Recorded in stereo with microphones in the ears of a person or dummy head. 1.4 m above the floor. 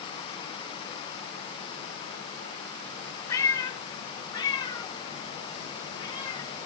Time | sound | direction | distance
3.3 | a cat meowing | 20° left (ahead or behind) | 1.4 m